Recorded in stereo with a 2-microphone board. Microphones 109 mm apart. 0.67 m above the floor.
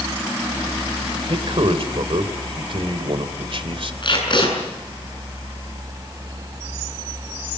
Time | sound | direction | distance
1.3 | a man speaking | 55° right (ahead or behind) | 2 m
4.0 | tape being pulled | 50° left (ahead or behind) | 7.5 m